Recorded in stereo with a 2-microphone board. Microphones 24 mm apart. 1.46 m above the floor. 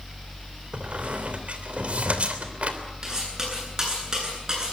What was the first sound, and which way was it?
A squeak, 60° right (ahead or behind).